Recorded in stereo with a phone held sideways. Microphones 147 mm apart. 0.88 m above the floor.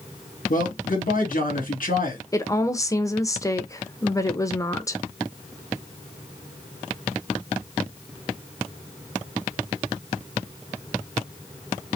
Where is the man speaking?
75° left (ahead or behind), 2.5 m.